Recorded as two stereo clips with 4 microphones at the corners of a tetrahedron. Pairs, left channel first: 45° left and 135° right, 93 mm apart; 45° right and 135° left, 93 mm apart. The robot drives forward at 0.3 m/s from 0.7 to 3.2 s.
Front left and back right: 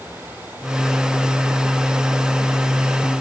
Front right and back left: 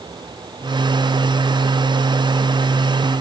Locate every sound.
Only background noise.